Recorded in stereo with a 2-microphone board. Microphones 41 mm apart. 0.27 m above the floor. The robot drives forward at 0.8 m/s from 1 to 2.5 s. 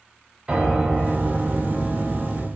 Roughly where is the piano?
Right.